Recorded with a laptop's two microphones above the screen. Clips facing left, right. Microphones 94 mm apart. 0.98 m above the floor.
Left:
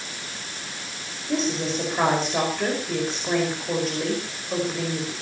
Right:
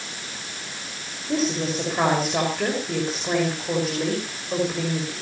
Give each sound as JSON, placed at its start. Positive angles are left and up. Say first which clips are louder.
{"t": 1.3, "sound": "a woman speaking", "louder": "right 1 dB", "side_deg": -5, "distance_m": 5.0}